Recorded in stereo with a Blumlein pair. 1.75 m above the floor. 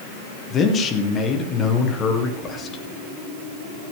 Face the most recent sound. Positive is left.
turn(degrees=20)